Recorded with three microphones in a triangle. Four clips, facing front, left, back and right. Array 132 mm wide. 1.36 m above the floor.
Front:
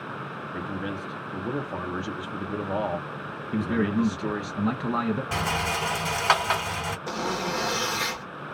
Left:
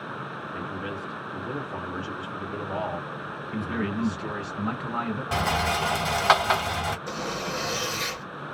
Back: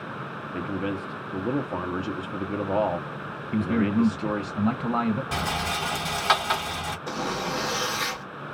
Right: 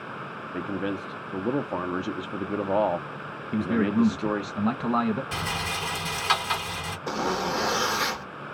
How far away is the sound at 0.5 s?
About 0.6 m.